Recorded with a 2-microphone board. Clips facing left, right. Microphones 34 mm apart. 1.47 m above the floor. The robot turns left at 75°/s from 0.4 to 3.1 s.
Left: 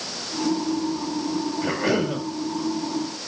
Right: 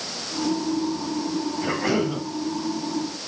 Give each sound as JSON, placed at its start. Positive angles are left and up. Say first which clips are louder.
{"t": 1.6, "sound": "a cough", "louder": "even", "azimuth_deg": 180, "distance_m": 7.5}